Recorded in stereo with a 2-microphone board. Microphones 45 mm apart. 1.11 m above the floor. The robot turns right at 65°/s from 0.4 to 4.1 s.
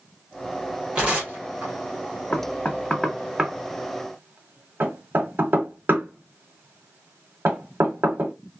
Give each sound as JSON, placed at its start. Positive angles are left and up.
{"t": 0.9, "sound": "tearing paper", "side_deg": -20, "distance_m": 1.3}
{"t": 2.3, "sound": "knocking", "side_deg": 50, "distance_m": 0.8}